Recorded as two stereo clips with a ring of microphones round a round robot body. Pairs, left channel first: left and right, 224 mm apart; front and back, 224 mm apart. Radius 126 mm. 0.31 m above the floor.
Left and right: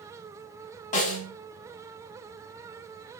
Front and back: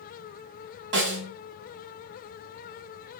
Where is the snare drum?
145° left, 0.7 m.